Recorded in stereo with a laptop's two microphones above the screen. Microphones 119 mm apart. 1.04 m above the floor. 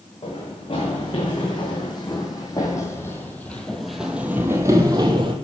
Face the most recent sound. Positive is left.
turn(degrees=-45)  # may be behind; listen again after turning